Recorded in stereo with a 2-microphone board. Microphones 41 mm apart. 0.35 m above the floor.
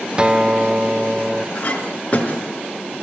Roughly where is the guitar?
Right.